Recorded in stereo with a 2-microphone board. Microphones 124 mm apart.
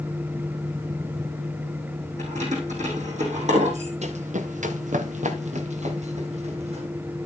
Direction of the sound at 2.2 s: 70° right (ahead or behind).